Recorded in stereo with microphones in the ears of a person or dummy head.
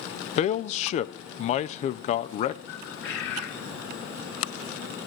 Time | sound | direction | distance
0.4 | a man speaking | 40° left (ahead or behind) | 0.6 m
2.7 | a bird | 75° left (ahead or behind) | 3.5 m